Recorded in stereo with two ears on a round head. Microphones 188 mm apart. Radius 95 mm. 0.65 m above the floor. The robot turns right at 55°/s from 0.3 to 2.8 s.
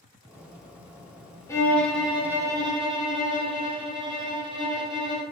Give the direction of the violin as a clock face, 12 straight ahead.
7 o'clock.